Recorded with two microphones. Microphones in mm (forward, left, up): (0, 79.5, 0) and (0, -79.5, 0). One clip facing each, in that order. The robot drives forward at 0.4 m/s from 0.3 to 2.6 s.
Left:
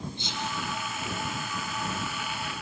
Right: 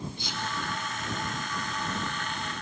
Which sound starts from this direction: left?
Whispering, at 0.2 s.